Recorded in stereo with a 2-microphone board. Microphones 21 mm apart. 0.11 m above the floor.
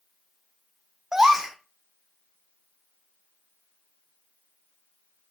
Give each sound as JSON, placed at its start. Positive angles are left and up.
{"t": 1.1, "sound": "a gasp", "side_deg": -25, "distance_m": 0.9}